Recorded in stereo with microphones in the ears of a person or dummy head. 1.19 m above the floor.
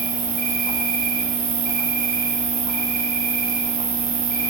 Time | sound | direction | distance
0.0 | an insect | 45° right (ahead or behind) | 1.9 m